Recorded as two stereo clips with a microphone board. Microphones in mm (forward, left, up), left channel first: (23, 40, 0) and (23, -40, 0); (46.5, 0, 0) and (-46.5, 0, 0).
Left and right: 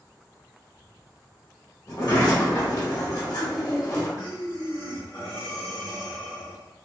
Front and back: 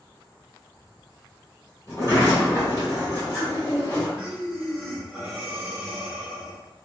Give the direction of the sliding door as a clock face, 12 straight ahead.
10 o'clock.